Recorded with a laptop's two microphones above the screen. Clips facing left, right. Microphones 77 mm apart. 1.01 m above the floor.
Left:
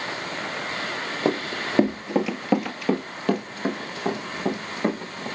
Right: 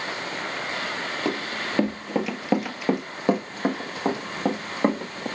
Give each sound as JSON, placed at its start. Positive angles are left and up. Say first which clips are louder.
{"t": 1.2, "sound": "running footsteps", "louder": "left 5 dB", "side_deg": 25, "distance_m": 1.1}